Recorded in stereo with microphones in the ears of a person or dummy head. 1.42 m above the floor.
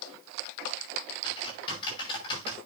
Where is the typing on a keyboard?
30° left (ahead or behind), 5.5 m.